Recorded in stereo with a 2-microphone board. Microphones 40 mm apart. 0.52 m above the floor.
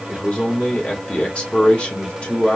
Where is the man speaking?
25° left (ahead or behind), 1.7 m.